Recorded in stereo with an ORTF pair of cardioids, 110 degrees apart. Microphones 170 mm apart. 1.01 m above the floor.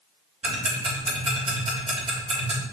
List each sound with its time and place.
0.4 s ticking: 35° right, 3 m